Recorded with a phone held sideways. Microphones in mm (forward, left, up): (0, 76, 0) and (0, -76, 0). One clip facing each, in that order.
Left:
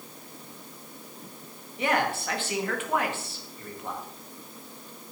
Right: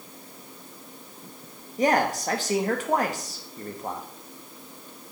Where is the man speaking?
40° right (ahead or behind), 1.5 m.